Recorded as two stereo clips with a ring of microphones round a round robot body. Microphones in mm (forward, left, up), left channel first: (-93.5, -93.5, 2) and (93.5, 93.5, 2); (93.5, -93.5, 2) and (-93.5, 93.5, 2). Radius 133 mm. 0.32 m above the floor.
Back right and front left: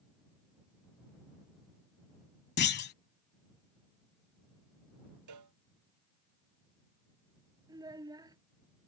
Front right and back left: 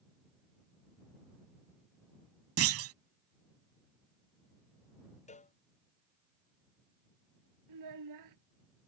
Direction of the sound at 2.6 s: 170° left.